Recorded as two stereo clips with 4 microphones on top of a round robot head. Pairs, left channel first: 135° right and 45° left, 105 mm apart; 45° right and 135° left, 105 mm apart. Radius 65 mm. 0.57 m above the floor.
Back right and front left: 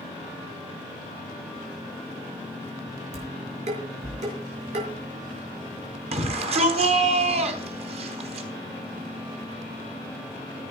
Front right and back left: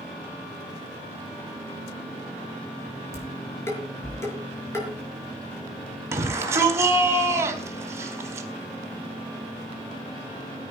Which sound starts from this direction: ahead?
Dishes clattering, at 3.1 s.